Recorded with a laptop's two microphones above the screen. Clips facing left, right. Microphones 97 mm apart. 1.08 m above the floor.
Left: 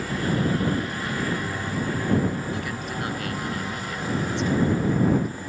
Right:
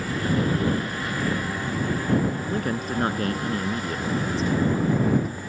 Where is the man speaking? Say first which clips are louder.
Right 4 dB; 40° right (ahead or behind).